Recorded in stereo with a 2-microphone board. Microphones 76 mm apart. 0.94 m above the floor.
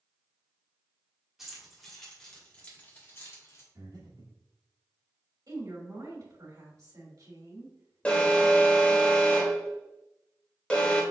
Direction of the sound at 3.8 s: 70° right (ahead or behind).